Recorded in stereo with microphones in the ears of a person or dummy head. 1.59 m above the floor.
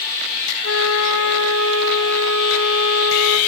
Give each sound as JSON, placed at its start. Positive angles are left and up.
{"t": 0.6, "sound": "a flute", "side_deg": 80, "distance_m": 1.2}